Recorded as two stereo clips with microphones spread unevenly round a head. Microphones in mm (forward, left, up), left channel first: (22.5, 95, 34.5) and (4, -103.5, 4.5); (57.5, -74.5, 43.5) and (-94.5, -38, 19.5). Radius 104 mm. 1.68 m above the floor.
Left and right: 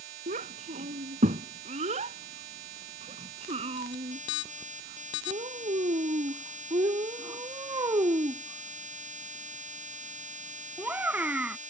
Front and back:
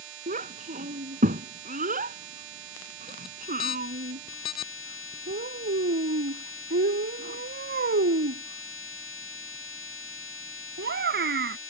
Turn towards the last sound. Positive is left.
turn(degrees=180)